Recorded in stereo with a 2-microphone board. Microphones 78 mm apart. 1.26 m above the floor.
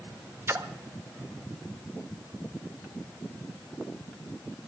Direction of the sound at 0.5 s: 35° right (ahead or behind).